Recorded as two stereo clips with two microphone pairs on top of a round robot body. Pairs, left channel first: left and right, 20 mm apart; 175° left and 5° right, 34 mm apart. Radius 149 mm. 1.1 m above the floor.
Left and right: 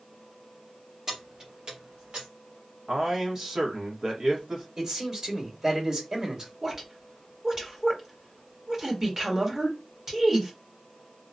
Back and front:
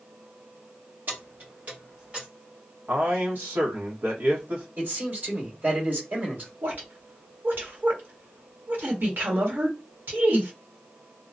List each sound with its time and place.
1.1 s keys jangling: 35° right, 1.4 m; by 2.3 s 70° right, 1.1 m
2.9 s a man speaking: 35° right, 1.3 m
4.8 s a man speaking: 40° right, 2.0 m
6.6 s a woman speaking: 25° right, 1.4 m